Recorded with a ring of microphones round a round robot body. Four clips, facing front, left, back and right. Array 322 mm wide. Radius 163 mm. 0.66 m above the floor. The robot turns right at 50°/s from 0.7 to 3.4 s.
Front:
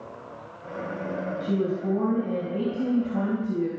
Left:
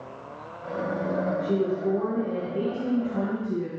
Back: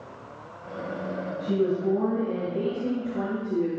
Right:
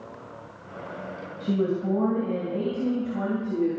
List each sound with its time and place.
1.4 s a woman speaking: 90° right, 4 m; by 3.7 s 10° left, 4 m